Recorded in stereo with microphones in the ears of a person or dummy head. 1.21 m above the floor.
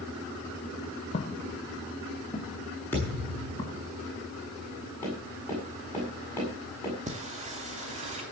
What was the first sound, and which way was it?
Footsteps, 30° left (ahead or behind).